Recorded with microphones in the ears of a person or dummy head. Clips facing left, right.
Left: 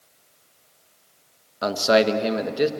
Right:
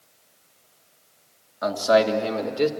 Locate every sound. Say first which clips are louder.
1.6 s a man speaking: even; 40° left (ahead or behind), 1.4 m; by 2.7 s 10° left (ahead or behind), 1.5 m